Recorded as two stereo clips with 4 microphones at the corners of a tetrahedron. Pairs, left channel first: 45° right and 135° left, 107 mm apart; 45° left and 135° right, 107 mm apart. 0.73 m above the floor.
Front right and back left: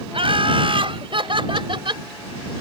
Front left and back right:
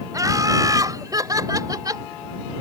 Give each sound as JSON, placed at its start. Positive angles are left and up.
{"t": 0.1, "sound": "laughter", "azimuth_deg": 170}